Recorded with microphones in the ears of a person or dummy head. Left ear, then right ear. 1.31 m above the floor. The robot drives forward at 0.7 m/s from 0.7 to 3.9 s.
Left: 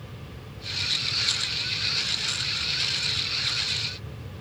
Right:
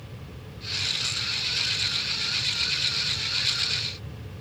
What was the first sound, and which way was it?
Only background noise.